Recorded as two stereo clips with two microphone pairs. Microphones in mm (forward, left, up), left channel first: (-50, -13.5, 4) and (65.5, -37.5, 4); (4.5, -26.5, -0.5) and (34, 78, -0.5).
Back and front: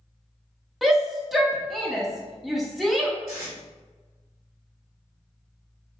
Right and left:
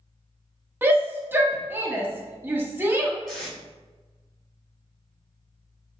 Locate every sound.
0.8 s a shout: 70° left, 0.6 m
3.3 s tape being pulled: 25° right, 1.2 m